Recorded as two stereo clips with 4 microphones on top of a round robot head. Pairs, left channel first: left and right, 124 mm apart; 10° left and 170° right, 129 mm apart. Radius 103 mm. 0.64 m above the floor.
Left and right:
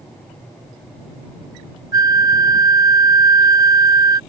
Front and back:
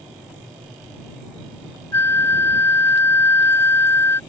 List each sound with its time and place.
1.9 s a flute: 50° right